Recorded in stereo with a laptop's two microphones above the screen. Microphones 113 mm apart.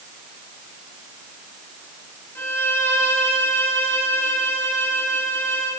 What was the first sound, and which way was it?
A violin, 20° left (ahead or behind).